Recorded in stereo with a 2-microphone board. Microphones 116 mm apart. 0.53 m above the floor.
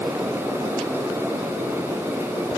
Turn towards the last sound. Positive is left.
No sound to turn to.